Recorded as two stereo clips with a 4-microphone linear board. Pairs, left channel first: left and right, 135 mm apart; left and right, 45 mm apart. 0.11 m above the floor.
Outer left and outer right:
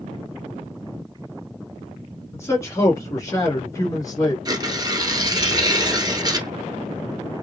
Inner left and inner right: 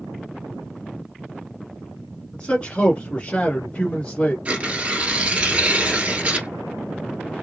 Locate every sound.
2.3 s a man speaking: 20° left (ahead or behind), 1.5 m; by 4.3 s 30° left (ahead or behind), 1.6 m
4.5 s tearing paper: 30° right (ahead or behind), 0.9 m